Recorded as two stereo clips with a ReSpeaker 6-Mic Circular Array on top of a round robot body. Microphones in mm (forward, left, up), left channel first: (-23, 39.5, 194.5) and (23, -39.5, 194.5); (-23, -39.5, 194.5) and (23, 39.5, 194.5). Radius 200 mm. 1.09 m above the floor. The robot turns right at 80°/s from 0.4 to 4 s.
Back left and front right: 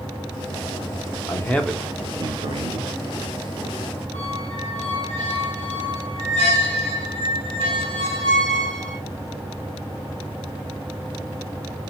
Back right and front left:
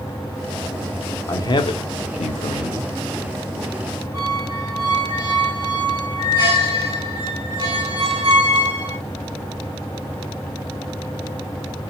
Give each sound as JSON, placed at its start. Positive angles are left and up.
{"t": 1.3, "sound": "a man speaking", "azimuth_deg": 175, "distance_m": 0.6}
{"t": 4.1, "sound": "a squeak", "azimuth_deg": 110, "distance_m": 1.0}